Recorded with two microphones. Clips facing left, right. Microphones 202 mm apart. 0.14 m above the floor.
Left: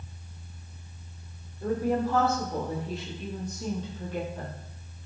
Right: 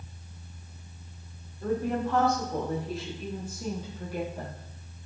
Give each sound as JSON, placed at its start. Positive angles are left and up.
{"t": 1.6, "sound": "a woman speaking", "side_deg": 10, "distance_m": 5.0}